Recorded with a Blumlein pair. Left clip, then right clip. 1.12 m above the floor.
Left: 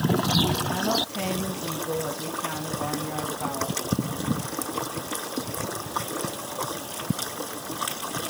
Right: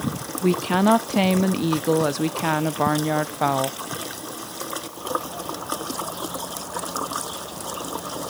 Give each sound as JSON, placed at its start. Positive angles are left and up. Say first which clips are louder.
{"t": 0.4, "sound": "a woman speaking", "louder": "right 5 dB", "azimuth_deg": -55, "distance_m": 1.0}